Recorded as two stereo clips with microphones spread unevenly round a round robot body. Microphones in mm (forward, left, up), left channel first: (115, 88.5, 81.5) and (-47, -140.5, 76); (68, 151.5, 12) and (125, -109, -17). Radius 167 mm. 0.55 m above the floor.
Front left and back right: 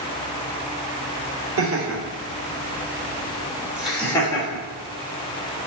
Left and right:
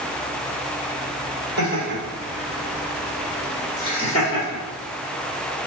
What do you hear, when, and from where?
1.6 s laughter: 115° right, 1.6 m; by 4.7 s 105° left, 1.2 m